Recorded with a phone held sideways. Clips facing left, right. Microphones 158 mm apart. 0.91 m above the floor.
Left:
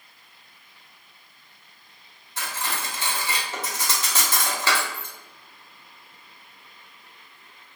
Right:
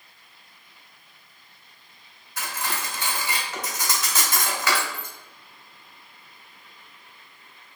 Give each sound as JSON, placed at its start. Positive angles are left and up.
{"t": 2.4, "sound": "cutlery clinking", "side_deg": 30, "distance_m": 1.3}